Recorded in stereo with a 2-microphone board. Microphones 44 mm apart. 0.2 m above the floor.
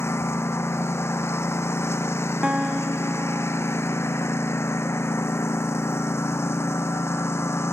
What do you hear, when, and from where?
0.0 s a lawn mower: 85° left
2.4 s a guitar: 20° right (ahead or behind)